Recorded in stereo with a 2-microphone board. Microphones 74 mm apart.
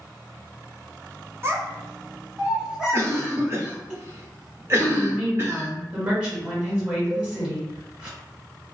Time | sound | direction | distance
1.4 | a child speaking | 35° right (ahead or behind) | 0.6 m
2.9 | a cough | 35° right (ahead or behind) | 0.7 m
4.9 | a woman speaking | 15° right (ahead or behind) | 1.6 m
7.1 | a cowbell | centre (ahead or behind) | 0.8 m